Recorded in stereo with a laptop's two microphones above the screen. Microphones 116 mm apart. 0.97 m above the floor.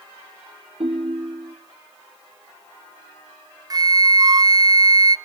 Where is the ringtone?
60° right (ahead or behind), 1.8 m.